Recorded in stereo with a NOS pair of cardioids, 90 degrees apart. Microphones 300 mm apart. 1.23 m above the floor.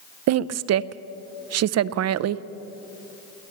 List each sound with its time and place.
0.3 s a woman speaking: 60° right, 0.5 m